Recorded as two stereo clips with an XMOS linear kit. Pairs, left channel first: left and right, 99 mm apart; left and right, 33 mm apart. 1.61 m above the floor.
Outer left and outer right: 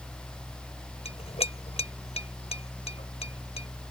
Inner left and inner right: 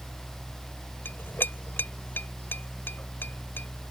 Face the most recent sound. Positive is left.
turn(degrees=80)